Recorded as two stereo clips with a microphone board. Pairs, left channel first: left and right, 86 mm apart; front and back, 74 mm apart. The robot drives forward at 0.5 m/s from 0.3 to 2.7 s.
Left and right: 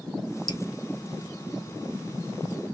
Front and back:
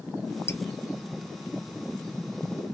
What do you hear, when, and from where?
0.5 s dripping: 60° left, 0.8 m; by 0.6 s 65° left, 0.8 m